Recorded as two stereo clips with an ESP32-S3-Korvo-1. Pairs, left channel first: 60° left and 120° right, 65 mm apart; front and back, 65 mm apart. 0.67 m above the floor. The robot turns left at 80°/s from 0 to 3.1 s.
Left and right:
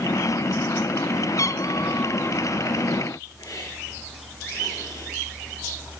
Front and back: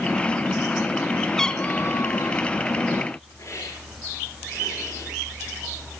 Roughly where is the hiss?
Ahead left.